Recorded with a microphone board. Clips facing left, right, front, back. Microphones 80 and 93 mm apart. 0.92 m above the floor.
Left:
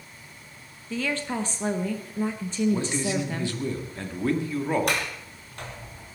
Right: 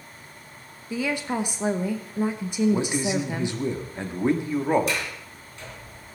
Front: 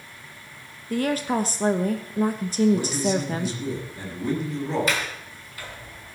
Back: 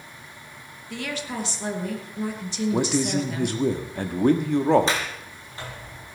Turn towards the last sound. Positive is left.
turn(degrees=120)